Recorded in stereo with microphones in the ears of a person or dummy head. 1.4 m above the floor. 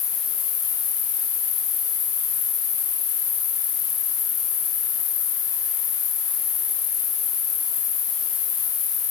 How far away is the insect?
About 2.5 m.